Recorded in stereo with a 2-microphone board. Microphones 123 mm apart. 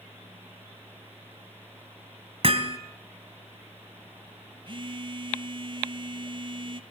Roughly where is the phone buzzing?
Right.